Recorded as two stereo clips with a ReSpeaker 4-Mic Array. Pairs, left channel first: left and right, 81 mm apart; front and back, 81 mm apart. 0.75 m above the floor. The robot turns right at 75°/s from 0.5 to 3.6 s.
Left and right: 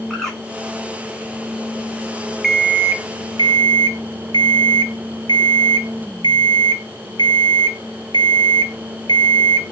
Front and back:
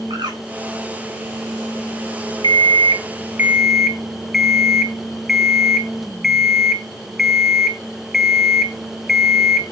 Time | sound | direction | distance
0.1 | a bird | 175° left | 2.5 m
2.4 | an alarm clock | straight behind | 0.9 m